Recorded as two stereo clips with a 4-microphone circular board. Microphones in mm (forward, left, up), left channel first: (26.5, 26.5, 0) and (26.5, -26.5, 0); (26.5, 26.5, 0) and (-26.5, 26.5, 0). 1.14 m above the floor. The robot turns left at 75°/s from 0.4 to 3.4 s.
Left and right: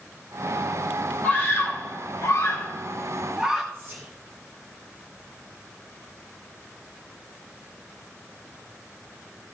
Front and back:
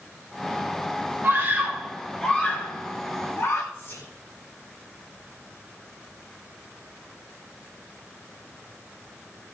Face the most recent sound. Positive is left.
turn(degrees=-40)